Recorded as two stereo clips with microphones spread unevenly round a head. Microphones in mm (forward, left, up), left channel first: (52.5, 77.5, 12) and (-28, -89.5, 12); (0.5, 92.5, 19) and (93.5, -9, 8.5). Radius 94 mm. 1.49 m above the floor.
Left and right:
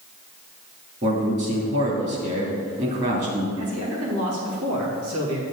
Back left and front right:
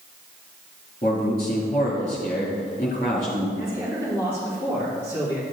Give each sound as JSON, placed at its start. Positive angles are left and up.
{"t": 1.0, "sound": "a man speaking", "azimuth_deg": -170, "distance_m": 2.5}
{"t": 3.6, "sound": "a man speaking", "azimuth_deg": -125, "distance_m": 2.5}